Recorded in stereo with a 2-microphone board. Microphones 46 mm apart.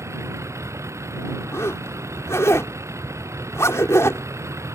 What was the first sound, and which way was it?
A vehicle, 85° right.